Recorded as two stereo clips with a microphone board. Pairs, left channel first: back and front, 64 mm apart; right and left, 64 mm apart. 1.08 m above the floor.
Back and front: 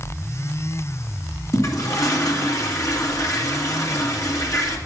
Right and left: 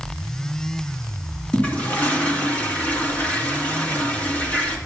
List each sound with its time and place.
1.5 s a toilet flushing: 155° right, 2.0 m